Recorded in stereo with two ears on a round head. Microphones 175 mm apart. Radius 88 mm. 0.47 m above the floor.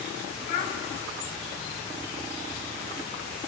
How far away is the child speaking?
About 2 m.